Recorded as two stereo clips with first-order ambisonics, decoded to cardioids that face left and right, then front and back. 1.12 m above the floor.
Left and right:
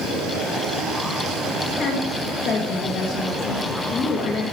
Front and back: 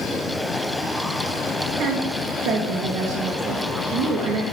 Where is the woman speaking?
140° left, 1.5 m.